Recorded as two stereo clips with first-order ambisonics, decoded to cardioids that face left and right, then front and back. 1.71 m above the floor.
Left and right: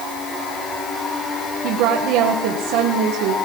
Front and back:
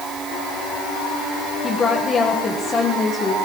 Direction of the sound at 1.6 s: 70° right.